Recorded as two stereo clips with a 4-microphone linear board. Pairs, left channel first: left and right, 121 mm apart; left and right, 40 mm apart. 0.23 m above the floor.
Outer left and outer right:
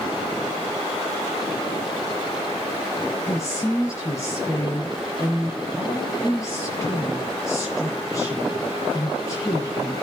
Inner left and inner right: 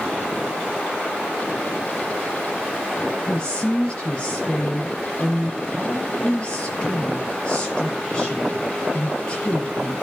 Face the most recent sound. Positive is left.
turn(degrees=25)  # may be behind; listen again after turning